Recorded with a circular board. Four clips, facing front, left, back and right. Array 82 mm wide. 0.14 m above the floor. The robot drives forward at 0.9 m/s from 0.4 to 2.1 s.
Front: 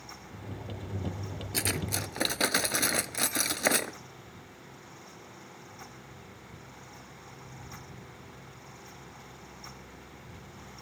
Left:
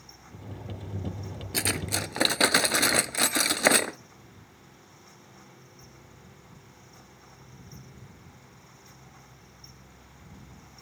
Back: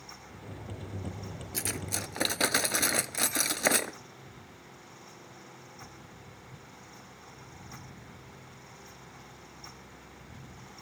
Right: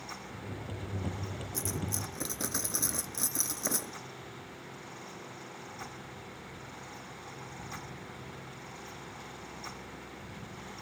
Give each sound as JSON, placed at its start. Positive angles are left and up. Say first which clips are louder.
{"t": 1.5, "sound": "cutlery clinking", "louder": "left 8 dB, front 4 dB", "azimuth_deg": 65}